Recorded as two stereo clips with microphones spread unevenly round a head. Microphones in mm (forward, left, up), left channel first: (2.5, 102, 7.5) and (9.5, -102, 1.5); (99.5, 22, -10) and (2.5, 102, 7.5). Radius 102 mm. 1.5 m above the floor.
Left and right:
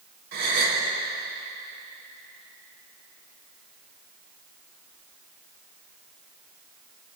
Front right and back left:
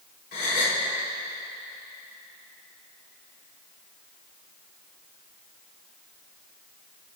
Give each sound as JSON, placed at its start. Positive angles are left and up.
{"t": 0.3, "sound": "a gasp", "azimuth_deg": -55, "distance_m": 3.5}